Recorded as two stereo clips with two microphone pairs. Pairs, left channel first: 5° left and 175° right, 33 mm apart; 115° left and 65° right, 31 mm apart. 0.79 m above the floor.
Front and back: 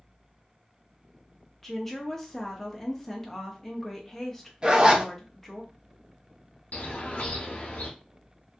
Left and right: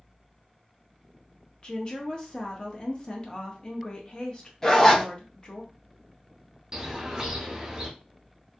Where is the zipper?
175° right, 0.7 m.